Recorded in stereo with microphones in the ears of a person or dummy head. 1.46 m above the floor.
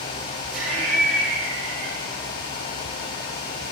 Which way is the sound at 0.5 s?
55° right (ahead or behind).